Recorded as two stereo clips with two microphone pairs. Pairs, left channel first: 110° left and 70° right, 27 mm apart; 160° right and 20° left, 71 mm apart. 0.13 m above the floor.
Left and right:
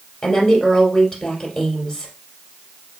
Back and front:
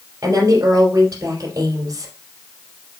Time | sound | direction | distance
0.2 | a woman speaking | 55° left | 3 m